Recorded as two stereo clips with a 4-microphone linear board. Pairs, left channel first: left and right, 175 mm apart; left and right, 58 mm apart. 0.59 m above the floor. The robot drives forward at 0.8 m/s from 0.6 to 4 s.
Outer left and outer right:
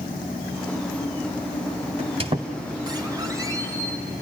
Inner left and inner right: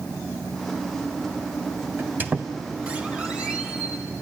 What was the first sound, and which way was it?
A squeak, 40° right (ahead or behind).